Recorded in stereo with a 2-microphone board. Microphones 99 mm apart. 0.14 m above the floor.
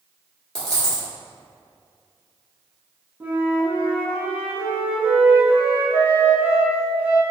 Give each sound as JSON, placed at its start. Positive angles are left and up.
{"t": 0.6, "sound": "a dropped coin", "side_deg": 5, "distance_m": 1.2}
{"t": 3.2, "sound": "a flute", "side_deg": -20, "distance_m": 0.6}